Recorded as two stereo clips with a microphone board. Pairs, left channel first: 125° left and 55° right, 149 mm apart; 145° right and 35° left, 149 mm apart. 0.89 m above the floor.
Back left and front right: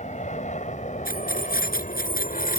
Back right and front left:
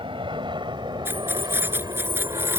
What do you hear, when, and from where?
0.0 s an aircraft: 90° left; by 2.6 s 100° left
1.1 s keys jangling: 110° left